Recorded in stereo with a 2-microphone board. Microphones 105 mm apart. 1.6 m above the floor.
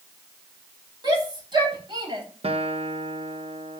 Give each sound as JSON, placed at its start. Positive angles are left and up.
{"t": 1.0, "sound": "a shout", "side_deg": -40, "distance_m": 9.0}
{"t": 2.4, "sound": "a guitar", "side_deg": -70, "distance_m": 1.5}